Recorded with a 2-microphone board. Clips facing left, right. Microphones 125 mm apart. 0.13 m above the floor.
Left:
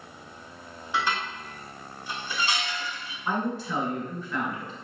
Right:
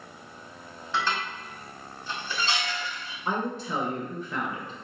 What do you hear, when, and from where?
0.9 s dishes clattering: 15° left (ahead or behind), 0.9 m
3.2 s a woman speaking: 20° right (ahead or behind), 1.5 m